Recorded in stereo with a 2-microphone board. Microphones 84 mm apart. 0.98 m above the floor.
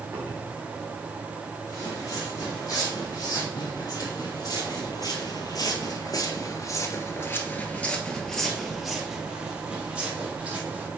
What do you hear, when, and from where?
0.1 s a cupboard door: 30° right (ahead or behind), 2.5 m
1.7 s footsteps: 40° left (ahead or behind), 3.5 m; by 10.9 s 15° right (ahead or behind), 2.5 m